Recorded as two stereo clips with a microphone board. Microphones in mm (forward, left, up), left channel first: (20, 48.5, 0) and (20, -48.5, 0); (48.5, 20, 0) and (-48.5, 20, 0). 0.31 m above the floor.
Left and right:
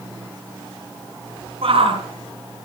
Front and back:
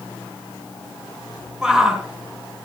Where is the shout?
95° right, 4 m.